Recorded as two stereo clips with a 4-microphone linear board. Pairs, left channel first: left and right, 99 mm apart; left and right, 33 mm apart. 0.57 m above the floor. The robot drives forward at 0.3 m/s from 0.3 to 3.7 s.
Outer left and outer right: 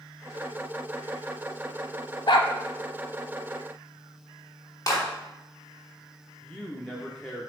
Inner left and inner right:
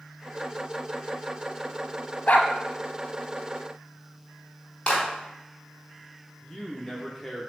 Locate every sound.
2.3 s a dog barking: 55° left (ahead or behind), 0.9 m; by 2.5 s 60° left (ahead or behind), 0.8 m
4.9 s a clap: 35° left (ahead or behind), 3.5 m
6.4 s a man speaking: 10° left (ahead or behind), 0.9 m